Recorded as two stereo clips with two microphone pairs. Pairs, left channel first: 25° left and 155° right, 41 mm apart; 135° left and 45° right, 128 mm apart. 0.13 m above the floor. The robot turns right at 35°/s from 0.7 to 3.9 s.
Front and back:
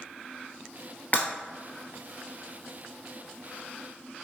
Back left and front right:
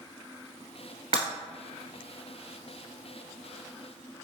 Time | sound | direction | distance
1.1 | breaking glass | 15° right | 1.4 m